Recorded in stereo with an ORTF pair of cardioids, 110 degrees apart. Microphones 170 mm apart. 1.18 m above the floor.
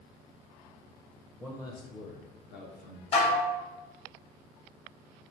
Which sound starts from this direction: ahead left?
Dishes clattering, at 3.1 s.